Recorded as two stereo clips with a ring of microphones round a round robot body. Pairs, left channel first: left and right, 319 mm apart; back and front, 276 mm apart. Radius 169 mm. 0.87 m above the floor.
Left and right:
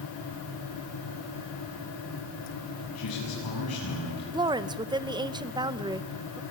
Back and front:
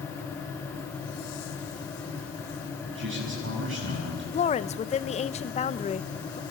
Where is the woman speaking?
150° right, 0.7 m.